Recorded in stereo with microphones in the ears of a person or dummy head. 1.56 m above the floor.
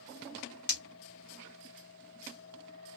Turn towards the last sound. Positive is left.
turn(degrees=25)  # may be behind; listen again after turning